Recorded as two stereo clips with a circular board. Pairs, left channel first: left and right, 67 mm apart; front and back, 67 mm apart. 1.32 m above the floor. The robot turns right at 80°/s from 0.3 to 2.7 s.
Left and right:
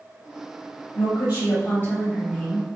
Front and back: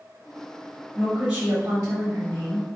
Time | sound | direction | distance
0.9 | a woman speaking | 80° left | 1.5 m